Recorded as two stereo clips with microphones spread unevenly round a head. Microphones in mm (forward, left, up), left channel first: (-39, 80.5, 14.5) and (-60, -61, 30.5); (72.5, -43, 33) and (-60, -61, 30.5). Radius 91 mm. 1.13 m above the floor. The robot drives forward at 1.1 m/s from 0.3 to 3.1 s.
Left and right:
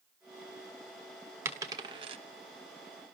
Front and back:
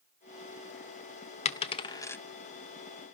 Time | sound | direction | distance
1.4 | a dropped coin | 25° right | 1.3 m